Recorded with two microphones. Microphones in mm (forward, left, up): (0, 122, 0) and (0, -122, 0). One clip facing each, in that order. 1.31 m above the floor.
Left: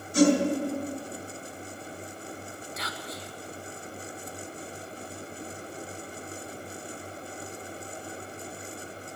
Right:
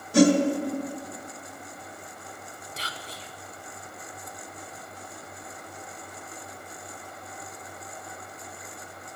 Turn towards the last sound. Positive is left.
turn(degrees=-30)  # may be behind; listen again after turning